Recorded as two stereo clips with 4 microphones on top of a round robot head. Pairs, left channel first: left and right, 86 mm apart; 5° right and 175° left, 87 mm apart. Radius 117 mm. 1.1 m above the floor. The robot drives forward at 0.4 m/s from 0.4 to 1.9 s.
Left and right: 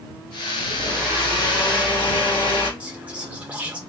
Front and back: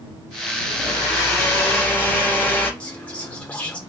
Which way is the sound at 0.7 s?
45° left.